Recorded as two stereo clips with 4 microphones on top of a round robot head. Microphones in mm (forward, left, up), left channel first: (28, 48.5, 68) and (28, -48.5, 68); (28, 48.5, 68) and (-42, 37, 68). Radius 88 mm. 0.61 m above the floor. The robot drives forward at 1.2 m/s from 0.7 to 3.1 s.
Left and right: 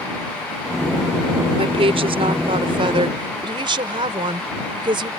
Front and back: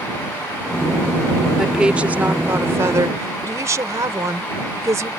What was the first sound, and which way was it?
A woman speaking, 85° right.